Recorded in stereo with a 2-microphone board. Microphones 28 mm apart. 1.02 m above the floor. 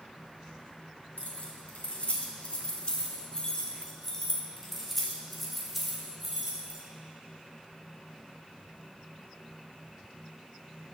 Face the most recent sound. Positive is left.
turn(degrees=-15)  # may be behind; listen again after turning